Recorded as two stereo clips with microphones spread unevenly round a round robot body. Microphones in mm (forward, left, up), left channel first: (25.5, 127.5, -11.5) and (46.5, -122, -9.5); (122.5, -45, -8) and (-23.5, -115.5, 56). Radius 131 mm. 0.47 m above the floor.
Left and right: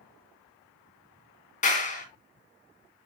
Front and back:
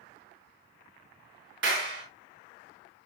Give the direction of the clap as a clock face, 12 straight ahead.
7 o'clock.